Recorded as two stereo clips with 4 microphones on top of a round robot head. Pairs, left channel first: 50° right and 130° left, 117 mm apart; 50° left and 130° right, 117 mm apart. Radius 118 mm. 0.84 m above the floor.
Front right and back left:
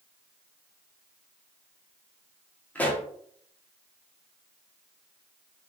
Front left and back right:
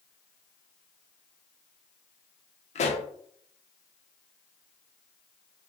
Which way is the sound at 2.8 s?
30° left.